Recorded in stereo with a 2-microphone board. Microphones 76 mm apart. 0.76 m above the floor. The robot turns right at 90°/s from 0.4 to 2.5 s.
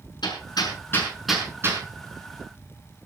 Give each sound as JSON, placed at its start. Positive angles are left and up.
{"t": 0.2, "sound": "hammering", "side_deg": 80, "distance_m": 6.0}